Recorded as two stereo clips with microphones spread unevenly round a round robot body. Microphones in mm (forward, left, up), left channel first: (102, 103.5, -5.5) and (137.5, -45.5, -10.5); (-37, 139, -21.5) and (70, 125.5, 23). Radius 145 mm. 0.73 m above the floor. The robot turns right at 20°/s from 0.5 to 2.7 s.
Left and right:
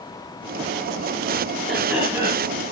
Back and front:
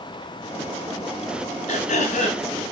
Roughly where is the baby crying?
I don't hear a baby crying.